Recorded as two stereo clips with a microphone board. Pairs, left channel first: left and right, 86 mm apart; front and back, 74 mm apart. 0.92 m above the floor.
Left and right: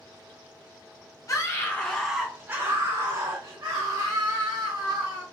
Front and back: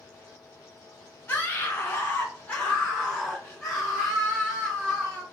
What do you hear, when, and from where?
1.3 s a scream: 55° left, 1.0 m; by 5.2 s 90° right, 2.5 m